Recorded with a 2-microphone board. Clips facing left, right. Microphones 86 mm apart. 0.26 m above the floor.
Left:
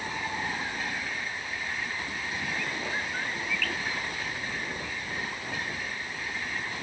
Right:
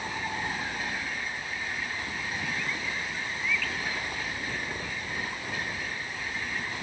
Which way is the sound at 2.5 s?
55° left (ahead or behind).